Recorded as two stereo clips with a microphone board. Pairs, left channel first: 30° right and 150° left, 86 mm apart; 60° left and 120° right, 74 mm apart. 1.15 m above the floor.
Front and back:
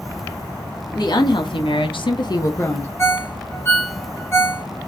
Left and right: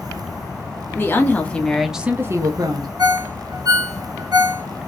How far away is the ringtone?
About 1.5 m.